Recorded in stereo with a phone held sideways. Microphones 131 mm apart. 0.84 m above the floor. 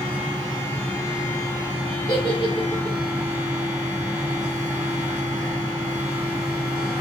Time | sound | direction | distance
0.0 | a fan | 25° left (ahead or behind) | 1.2 m
2.1 | a giggle | 40° left (ahead or behind) | 0.9 m